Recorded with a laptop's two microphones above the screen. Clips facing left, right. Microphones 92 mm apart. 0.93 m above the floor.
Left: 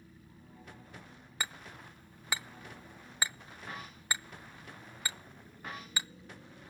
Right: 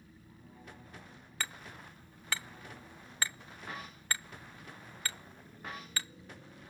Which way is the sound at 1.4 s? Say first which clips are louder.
Left 1 dB; 15° left (ahead or behind).